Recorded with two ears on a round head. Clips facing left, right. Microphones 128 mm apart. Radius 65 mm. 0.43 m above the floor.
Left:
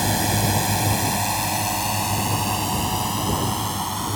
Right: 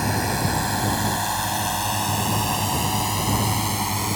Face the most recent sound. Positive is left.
turn(degrees=-15)  # may be behind; listen again after turning